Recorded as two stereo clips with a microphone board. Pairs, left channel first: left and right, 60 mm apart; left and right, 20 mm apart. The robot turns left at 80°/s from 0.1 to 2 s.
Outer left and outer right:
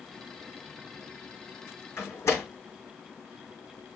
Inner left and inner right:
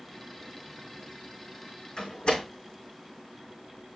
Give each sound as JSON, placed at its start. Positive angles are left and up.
{"t": 2.0, "sound": "a door slam", "side_deg": 45, "distance_m": 5.5}